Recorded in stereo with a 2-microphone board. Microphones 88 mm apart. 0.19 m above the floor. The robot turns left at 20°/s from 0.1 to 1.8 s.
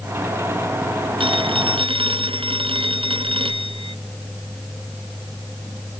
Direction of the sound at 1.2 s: 80° right.